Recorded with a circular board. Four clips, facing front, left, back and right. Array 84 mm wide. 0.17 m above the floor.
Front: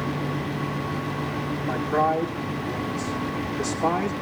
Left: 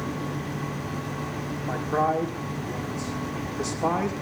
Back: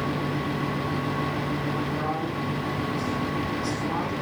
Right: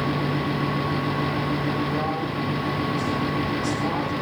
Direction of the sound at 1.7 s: 40° left.